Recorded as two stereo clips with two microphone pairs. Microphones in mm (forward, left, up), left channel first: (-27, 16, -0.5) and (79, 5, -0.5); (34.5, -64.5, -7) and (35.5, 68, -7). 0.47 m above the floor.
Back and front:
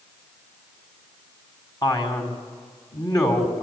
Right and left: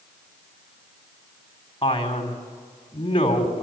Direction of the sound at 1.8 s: 135° right.